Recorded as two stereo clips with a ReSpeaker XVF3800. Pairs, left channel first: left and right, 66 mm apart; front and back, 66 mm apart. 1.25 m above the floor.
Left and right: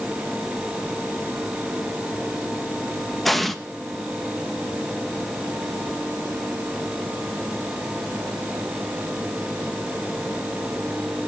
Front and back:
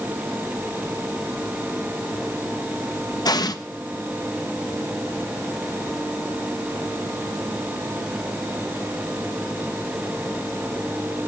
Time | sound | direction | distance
3.2 | an explosion | straight ahead | 1.0 m